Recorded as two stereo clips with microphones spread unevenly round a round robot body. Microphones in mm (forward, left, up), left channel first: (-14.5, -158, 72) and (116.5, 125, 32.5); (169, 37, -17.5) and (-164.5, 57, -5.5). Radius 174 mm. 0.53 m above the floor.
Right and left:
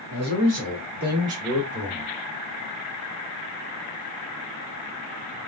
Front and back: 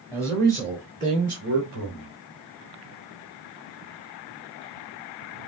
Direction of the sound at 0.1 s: 105° left.